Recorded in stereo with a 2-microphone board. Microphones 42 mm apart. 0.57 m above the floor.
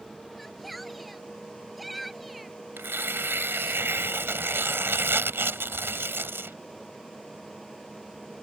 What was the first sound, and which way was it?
A shout, centre (ahead or behind).